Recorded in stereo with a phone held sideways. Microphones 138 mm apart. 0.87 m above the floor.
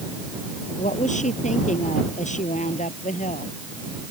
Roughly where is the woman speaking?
Left.